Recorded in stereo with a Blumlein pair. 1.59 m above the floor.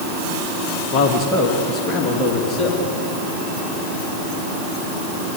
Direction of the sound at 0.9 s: 35° left.